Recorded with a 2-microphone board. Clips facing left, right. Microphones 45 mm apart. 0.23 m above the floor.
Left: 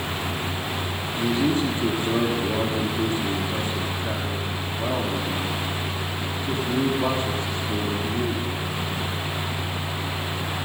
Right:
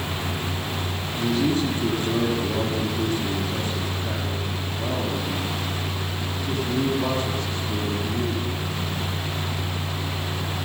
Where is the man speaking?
25° left (ahead or behind), 9.5 m.